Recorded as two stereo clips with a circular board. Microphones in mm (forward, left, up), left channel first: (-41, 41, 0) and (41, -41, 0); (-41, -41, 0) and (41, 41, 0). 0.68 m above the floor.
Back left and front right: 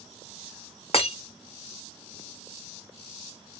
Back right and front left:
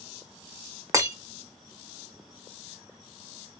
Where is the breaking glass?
105° left, 0.9 m.